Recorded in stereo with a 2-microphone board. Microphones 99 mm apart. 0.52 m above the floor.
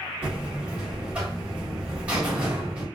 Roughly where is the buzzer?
Centre.